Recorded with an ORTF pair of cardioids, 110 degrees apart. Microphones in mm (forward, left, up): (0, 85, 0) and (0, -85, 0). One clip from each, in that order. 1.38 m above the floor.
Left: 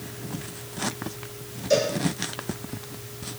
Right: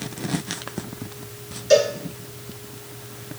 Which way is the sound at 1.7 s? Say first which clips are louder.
Right 6 dB; 65° right.